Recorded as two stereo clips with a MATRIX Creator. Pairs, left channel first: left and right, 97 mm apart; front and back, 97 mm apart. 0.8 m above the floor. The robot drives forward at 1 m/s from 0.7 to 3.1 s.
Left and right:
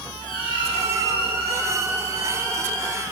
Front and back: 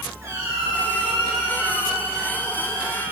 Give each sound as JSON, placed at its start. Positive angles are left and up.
{"t": 0.2, "sound": "a squeak", "azimuth_deg": 120, "distance_m": 3.5}